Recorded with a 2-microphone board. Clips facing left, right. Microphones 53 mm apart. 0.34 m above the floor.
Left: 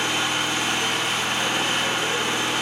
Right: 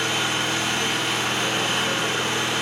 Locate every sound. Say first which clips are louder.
0.0 s an engine running: even; 20° left (ahead or behind), 1.4 m